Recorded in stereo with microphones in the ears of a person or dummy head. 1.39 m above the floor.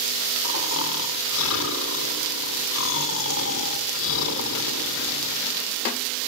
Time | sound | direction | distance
0.4 | snoring | 75° left (ahead or behind) | 3 m